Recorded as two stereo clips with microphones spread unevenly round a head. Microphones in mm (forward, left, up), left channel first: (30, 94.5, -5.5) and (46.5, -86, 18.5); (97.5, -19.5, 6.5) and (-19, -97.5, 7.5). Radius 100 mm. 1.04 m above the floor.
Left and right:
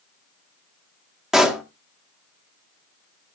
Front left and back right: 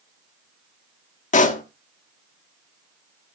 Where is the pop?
Straight ahead, 1.3 m.